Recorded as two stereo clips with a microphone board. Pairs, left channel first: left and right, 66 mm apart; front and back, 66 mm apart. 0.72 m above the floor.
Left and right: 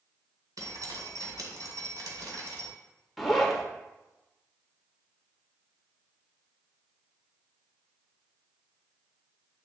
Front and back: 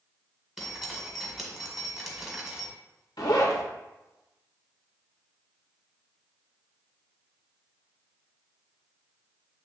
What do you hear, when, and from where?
0.6 s dripping: 95° right, 1.6 m
3.2 s a zipper: straight ahead, 1.3 m